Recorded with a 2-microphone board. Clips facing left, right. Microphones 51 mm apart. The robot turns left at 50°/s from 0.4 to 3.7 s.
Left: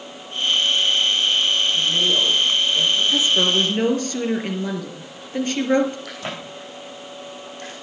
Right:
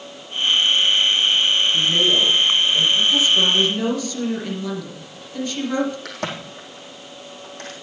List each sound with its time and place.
1.7 s a woman speaking: 105° right, 4 m; by 3.0 s 170° right, 4 m
3.1 s a woman speaking: 20° left (ahead or behind), 3 m; by 6.0 s 45° left (ahead or behind), 3 m
6.0 s a crack: 55° right (ahead or behind), 5 m